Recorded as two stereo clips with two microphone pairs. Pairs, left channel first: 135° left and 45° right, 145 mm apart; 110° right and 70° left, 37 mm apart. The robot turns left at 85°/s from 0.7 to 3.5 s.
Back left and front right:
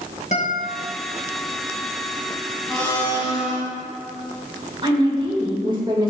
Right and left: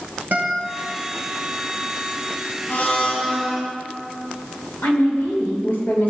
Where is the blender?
130° right, 2 m; by 3.6 s 160° left, 2 m.